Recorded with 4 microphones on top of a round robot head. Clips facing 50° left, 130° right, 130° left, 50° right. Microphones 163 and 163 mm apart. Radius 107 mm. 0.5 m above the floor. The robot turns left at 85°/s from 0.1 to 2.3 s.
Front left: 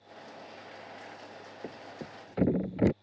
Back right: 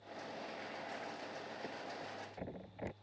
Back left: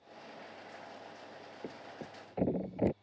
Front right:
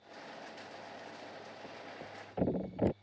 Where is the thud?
105° left; by 2.9 s 50° left.